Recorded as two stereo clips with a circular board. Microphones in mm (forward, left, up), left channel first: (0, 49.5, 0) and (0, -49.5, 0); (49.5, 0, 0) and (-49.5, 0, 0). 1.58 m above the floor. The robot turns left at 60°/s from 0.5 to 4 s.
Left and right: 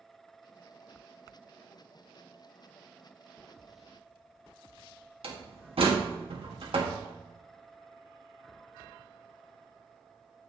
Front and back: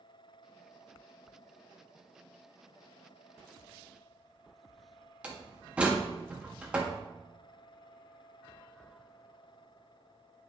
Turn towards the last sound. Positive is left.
turn(degrees=-105)